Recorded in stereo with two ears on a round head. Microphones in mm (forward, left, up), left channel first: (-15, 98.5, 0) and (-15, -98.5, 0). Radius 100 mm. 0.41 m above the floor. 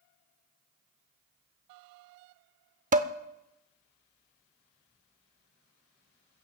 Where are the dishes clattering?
35° right (ahead or behind), 0.7 m.